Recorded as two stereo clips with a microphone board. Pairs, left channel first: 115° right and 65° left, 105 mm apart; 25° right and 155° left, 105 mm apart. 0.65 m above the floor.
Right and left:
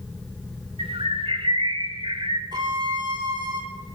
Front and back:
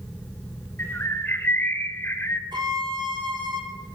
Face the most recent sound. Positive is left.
turn(degrees=115)